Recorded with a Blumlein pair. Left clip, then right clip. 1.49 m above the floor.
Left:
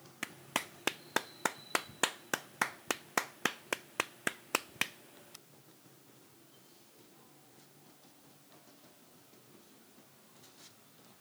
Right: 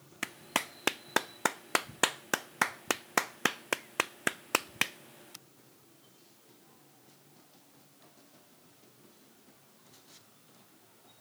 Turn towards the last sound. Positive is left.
turn(degrees=-15)